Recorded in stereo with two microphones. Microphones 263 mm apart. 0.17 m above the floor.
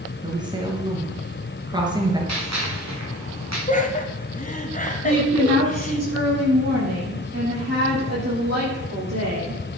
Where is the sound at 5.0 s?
70° right (ahead or behind), 6.5 m.